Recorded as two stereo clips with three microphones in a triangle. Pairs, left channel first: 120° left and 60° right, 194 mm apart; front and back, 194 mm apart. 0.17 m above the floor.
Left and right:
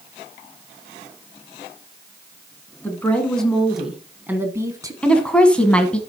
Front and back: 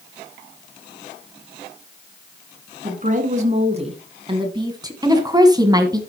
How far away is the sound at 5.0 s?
About 1.3 m.